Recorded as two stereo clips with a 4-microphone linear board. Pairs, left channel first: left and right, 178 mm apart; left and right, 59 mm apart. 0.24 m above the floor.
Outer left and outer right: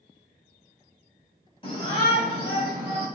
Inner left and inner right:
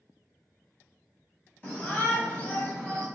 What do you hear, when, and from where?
1.6 s a shout: 30° left (ahead or behind), 1.3 m; by 3.1 s 25° left (ahead or behind), 1.1 m